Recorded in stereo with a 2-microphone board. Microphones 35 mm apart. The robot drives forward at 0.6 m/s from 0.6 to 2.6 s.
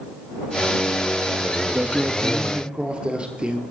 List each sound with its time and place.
1.6 s a man speaking: 35° right (ahead or behind), 1.3 m; by 3.6 s 30° right (ahead or behind), 1.5 m